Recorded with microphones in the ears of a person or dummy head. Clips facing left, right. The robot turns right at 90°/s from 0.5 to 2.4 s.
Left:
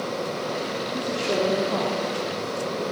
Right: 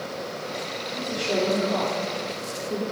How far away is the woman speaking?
About 3 m.